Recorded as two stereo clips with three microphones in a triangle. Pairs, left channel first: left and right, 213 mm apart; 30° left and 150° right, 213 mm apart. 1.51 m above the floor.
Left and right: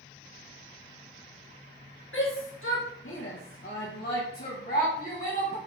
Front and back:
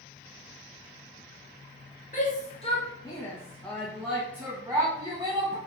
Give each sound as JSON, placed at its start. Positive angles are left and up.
{"t": 2.1, "sound": "a shout", "azimuth_deg": 75, "distance_m": 1.3}